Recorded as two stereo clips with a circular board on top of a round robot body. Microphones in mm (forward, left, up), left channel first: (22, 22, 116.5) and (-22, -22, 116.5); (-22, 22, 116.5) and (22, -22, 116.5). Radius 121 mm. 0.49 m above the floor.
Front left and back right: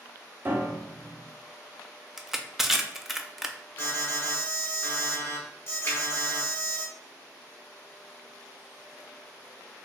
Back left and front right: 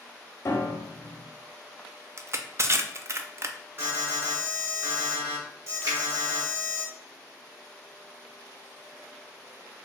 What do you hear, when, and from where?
0.5 s a piano: 170° left, 0.8 m
2.2 s crushing: 50° right, 0.5 m
3.8 s an alarm: 5° right, 1.6 m
5.8 s a finger snap: 10° right, 1.7 m